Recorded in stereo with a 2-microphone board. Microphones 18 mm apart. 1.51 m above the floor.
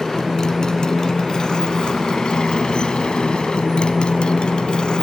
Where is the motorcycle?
35° left (ahead or behind); by 5.0 s 60° left (ahead or behind).